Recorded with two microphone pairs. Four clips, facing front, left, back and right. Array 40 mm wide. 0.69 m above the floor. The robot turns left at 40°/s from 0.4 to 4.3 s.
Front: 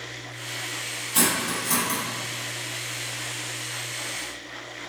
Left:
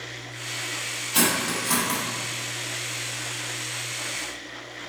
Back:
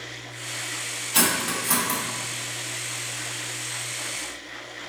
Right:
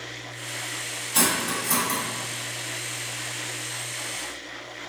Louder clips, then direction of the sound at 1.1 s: Left 1 dB, back 1 dB; 165° left.